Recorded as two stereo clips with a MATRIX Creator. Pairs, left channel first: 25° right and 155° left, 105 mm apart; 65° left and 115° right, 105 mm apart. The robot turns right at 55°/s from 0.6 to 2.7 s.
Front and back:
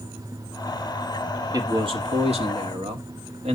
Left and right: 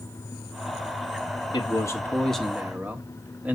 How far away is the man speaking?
About 1.6 m.